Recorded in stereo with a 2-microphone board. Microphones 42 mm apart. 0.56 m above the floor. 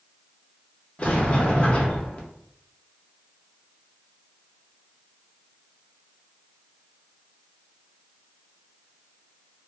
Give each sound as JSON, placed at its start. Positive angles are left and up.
{"t": 1.0, "sound": "a sliding door", "side_deg": 30, "distance_m": 0.6}